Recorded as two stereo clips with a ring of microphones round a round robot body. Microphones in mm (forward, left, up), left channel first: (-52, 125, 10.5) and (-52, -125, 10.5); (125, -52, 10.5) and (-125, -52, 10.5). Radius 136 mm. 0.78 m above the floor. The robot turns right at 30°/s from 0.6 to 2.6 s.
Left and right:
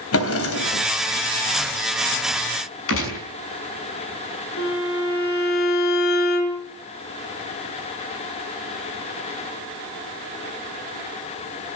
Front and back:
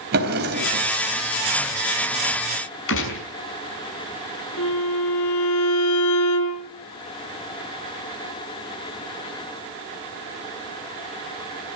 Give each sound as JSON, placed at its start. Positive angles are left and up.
{"t": 0.1, "sound": "a drawer", "azimuth_deg": 125, "distance_m": 3.5}
{"t": 2.9, "sound": "a gunshot", "azimuth_deg": 45, "distance_m": 6.0}
{"t": 4.6, "sound": "a violin", "azimuth_deg": 45, "distance_m": 4.5}